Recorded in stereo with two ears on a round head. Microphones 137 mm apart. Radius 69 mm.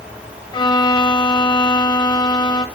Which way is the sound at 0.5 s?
30° left (ahead or behind).